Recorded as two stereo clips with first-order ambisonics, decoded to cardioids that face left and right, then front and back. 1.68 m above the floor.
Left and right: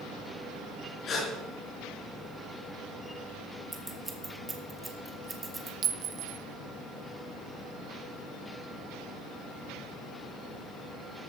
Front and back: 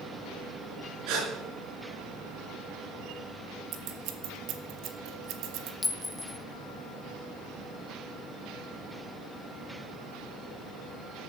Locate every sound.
1.1 s a gasp: 155° left, 4.5 m
3.7 s scissors: 165° right, 1.4 m
5.8 s a clink: 70° right, 0.8 m